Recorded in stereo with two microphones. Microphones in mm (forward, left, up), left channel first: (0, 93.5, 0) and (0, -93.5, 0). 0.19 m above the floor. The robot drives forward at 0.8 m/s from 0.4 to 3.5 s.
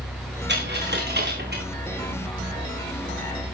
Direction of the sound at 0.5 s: 65° right (ahead or behind).